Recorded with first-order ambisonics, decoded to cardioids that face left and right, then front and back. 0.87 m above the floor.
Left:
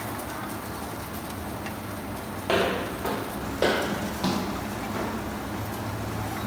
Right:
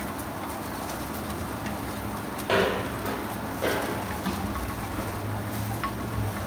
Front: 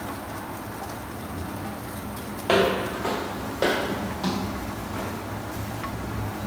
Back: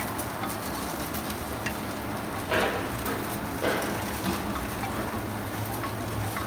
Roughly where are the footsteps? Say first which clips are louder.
Even, front 6 dB; ahead.